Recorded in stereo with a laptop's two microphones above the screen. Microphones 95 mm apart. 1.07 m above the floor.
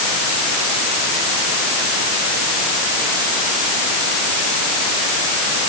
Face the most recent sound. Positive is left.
No sound to turn to.